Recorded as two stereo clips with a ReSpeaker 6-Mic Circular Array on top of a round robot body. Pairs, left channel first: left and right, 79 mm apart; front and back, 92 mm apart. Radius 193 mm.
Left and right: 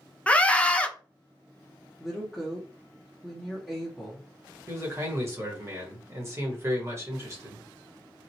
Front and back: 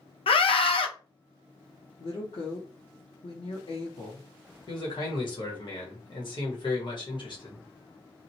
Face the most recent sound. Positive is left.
turn(degrees=-35)